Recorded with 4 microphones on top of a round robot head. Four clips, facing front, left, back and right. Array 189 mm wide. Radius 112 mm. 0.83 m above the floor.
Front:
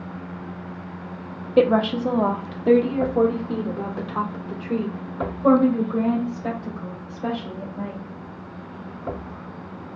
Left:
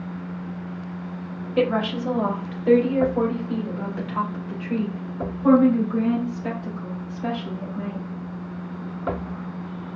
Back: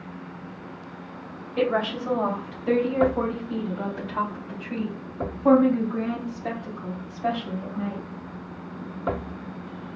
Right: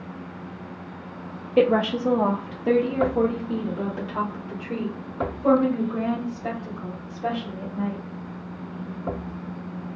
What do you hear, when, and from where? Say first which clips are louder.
1.6 s a woman speaking: right 3 dB, front 6 dB; 30° right, 0.8 m